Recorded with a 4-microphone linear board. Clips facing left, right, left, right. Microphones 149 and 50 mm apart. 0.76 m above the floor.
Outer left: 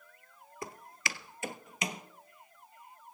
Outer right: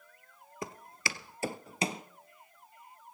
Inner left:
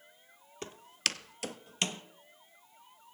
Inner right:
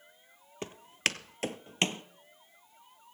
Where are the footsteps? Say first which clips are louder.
Outer right 2 dB, inner right 4 dB; 20° right (ahead or behind), 1.0 m; by 2.0 s 30° right (ahead or behind), 1.1 m.